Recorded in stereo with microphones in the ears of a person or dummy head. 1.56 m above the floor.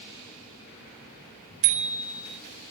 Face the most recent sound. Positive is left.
turn(degrees=-85)